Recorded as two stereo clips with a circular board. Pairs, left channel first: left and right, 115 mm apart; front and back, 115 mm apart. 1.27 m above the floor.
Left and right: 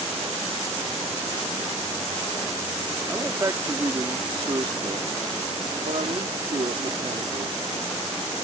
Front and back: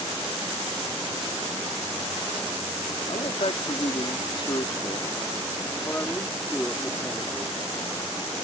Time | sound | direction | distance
3.1 | a man speaking | 25° right | ?